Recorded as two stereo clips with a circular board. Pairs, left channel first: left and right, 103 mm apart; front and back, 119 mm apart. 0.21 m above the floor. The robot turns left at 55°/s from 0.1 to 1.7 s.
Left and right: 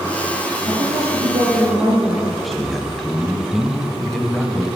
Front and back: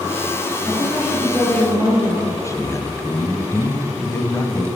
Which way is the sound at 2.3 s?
Straight ahead.